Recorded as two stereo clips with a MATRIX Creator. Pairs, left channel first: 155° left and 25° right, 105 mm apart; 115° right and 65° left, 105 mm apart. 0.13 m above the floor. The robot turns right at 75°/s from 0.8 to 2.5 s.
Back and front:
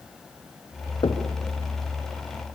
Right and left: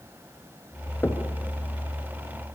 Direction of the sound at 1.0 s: Straight behind.